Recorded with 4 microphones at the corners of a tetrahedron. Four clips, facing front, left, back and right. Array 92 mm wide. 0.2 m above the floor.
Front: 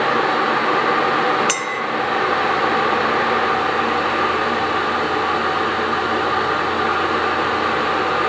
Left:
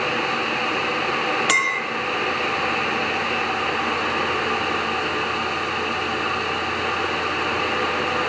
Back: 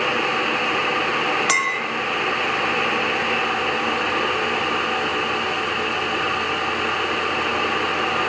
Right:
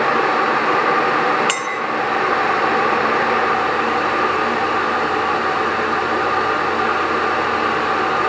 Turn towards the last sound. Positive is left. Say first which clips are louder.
# left 1 dB, back 1 dB
turn(degrees=145)